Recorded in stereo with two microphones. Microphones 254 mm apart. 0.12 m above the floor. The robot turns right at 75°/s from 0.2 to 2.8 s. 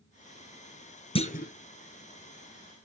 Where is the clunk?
20° left (ahead or behind), 1.0 m; by 1.5 s 40° left (ahead or behind), 1.0 m.